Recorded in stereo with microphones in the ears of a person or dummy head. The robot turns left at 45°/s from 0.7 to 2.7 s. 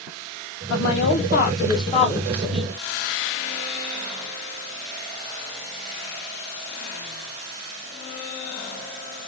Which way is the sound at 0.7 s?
80° left.